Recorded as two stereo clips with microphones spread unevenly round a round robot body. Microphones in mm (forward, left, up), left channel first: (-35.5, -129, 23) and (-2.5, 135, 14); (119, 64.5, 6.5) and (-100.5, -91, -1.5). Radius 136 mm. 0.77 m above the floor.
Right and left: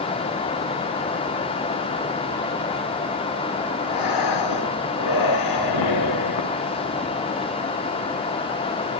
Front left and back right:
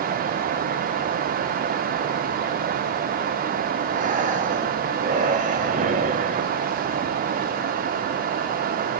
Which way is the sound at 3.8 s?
80° right.